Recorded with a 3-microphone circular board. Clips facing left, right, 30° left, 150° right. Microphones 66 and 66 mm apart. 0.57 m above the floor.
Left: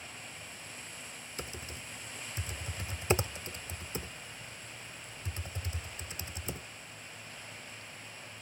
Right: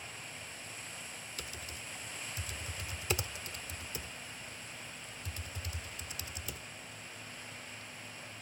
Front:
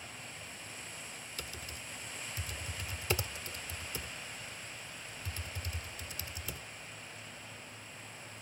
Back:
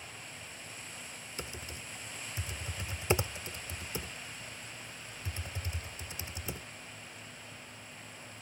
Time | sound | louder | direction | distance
1.4 | typing on a keyboard | left 5 dB, back 4 dB | 145° left | ?